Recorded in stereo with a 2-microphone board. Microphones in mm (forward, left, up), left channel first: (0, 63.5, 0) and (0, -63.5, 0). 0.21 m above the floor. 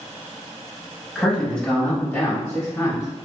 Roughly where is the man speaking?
Centre.